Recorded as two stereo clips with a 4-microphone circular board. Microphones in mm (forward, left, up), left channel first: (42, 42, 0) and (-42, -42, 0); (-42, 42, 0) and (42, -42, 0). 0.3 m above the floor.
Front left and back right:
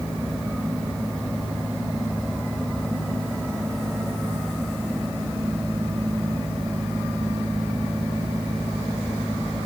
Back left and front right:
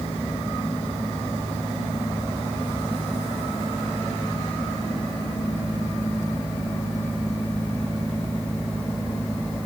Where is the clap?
No clap in this recording.